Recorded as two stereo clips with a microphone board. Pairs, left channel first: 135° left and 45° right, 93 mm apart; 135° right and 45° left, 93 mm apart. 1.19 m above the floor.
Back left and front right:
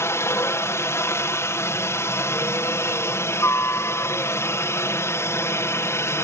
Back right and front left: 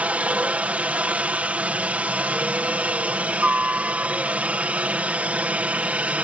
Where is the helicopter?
110° left.